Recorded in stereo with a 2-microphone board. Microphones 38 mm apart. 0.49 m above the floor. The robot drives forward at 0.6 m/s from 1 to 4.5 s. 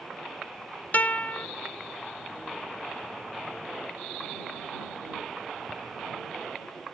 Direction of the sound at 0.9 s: 45° left (ahead or behind).